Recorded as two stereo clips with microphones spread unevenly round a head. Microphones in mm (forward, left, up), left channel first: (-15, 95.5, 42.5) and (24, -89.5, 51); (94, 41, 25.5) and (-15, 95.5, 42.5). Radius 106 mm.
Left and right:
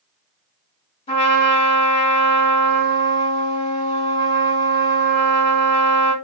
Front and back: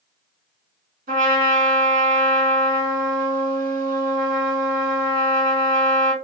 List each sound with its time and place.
1.1 s a trumpet: 160° left, 1.4 m